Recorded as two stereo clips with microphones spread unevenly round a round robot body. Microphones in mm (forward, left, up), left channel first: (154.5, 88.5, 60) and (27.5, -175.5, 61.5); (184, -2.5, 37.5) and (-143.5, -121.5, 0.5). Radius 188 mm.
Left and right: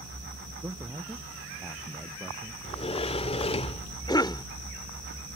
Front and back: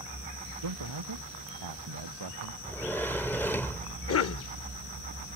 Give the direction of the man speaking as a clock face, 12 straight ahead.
7 o'clock.